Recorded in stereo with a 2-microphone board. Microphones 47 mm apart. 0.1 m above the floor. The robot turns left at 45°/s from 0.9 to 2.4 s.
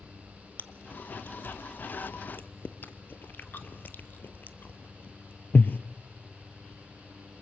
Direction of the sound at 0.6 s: 45° left (ahead or behind).